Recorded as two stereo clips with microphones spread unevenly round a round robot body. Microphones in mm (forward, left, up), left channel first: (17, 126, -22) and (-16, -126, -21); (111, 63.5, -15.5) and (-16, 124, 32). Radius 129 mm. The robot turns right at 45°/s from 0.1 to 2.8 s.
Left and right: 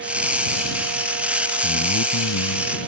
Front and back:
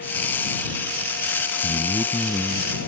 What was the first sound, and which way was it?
A man speaking, 30° left.